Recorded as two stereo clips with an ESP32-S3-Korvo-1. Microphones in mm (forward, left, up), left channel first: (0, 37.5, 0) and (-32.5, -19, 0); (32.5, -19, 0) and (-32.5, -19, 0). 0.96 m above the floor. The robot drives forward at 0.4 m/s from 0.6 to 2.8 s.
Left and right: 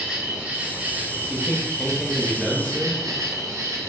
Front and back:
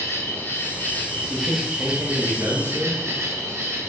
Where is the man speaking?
100° left, 0.8 m; by 3.0 s 155° left, 1.0 m.